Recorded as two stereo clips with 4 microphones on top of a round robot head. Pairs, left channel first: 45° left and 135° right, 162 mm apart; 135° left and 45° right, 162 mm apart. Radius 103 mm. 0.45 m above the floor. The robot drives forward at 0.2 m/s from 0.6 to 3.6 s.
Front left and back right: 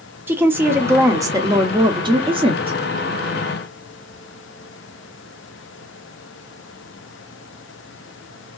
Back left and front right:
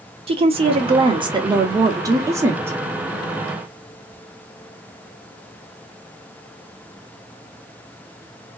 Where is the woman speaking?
65° right, 0.9 m; by 2.8 s 115° right, 0.9 m.